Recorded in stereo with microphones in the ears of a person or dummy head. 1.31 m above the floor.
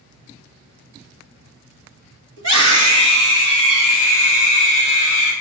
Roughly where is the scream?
Right.